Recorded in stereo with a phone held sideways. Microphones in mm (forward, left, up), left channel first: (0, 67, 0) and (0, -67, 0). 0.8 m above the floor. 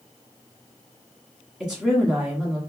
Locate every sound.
1.6 s a woman speaking: 5° right (ahead or behind), 1.6 m